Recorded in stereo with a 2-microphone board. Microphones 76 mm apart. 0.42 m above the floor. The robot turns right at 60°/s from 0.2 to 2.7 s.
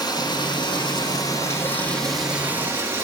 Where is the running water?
65° left, 4 m; by 3.0 s 145° right, 4 m.